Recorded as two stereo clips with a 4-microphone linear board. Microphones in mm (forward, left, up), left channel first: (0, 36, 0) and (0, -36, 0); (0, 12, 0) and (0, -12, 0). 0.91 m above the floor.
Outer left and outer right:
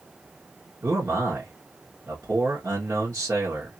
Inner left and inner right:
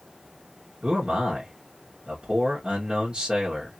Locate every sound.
0.8 s a man speaking: 40° right (ahead or behind), 1.2 m